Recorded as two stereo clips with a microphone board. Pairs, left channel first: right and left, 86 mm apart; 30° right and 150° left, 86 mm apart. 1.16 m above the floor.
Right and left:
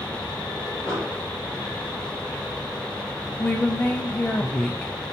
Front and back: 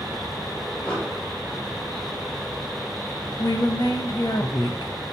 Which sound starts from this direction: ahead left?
An explosion, at 0.9 s.